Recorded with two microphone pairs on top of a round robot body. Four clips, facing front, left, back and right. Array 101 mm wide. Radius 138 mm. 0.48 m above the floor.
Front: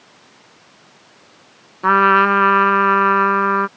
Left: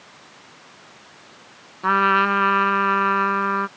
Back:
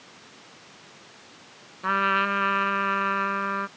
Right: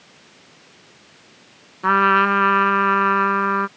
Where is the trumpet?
15° right.